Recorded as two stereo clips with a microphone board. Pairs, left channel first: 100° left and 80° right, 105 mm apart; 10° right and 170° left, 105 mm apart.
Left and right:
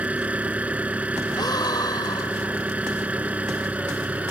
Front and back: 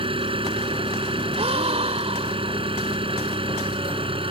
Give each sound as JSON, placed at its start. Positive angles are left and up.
{"t": 0.0, "sound": "an engine running", "azimuth_deg": -155}
{"t": 1.4, "sound": "a gasp", "azimuth_deg": 150}